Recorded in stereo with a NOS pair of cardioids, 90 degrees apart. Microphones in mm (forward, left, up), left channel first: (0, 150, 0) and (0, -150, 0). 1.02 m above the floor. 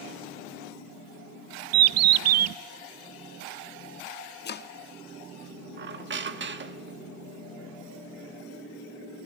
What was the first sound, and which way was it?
A bird, 60° right.